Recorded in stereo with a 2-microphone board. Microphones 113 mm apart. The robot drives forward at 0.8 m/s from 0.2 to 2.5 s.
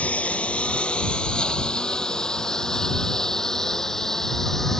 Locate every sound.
0.0 s a lawn mower: 15° left (ahead or behind); by 4.8 s 5° left (ahead or behind)